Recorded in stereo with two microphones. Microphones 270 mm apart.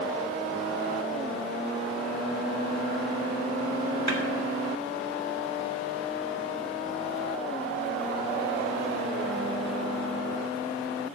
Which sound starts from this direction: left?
A snare drum, at 4.1 s.